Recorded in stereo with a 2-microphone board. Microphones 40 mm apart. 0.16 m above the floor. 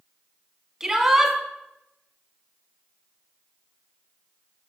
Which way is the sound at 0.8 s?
15° right (ahead or behind).